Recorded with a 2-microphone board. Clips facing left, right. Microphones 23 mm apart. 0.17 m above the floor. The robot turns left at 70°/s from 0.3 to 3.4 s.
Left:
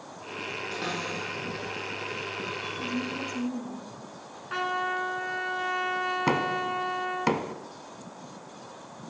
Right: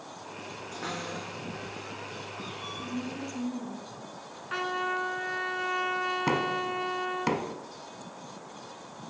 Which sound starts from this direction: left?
A cupboard door, at 0.7 s.